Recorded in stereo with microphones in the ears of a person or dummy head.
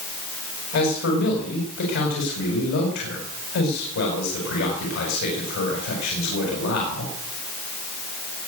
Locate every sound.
0.7 s a man speaking: 75° left (ahead or behind), 5 m